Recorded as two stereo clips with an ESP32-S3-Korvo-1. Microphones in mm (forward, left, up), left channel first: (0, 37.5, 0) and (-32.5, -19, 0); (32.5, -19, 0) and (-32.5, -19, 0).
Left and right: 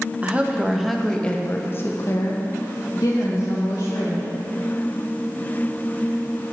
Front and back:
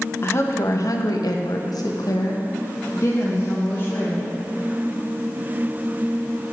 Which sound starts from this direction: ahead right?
A woman speaking, at 0.2 s.